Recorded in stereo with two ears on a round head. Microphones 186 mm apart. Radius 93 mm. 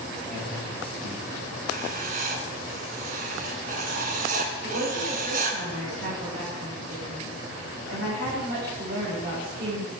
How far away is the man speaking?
About 6.5 m.